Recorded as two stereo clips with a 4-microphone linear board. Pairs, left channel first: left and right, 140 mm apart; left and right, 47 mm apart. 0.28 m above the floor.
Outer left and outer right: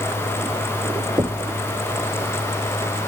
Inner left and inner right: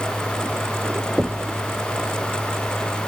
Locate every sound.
1.2 s knocking: 25° right (ahead or behind)